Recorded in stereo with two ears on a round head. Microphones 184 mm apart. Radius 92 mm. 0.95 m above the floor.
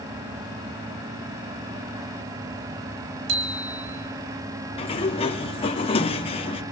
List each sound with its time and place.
3.3 s a bicycle bell: 60° right (ahead or behind), 4.5 m
4.8 s a sliding door: 25° left (ahead or behind), 1.2 m